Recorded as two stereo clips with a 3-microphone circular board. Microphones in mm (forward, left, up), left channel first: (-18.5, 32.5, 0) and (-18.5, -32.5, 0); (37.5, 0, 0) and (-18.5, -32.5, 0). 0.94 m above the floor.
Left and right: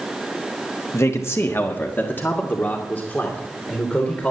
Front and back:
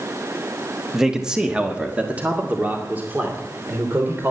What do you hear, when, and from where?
0.9 s a man speaking: 125° left, 1.1 m; by 4.3 s 160° left, 3 m